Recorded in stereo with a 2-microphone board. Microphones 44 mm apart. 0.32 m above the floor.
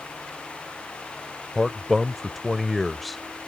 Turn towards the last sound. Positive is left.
turn(degrees=0)  # may be behind; listen again after turning